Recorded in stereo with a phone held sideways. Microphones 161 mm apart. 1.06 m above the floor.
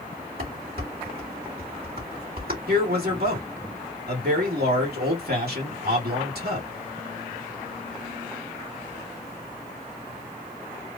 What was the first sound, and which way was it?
Dishes clattering, 70° right (ahead or behind).